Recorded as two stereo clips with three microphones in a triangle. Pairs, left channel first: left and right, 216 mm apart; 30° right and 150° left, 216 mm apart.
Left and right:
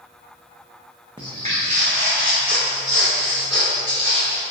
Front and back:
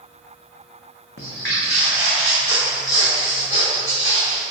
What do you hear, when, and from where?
1.2 s footsteps: 20° right, 0.8 m; by 4.4 s 65° right, 2.5 m